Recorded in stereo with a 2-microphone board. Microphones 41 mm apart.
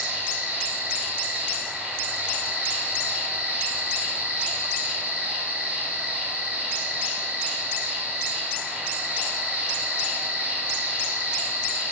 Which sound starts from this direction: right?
An insect, at 0.0 s.